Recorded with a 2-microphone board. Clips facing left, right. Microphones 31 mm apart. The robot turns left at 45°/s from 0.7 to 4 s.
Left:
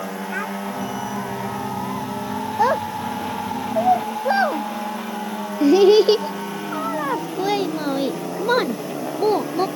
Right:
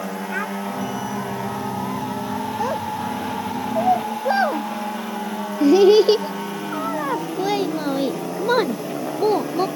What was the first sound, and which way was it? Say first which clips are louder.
A child speaking: right 1 dB; 5° right (ahead or behind).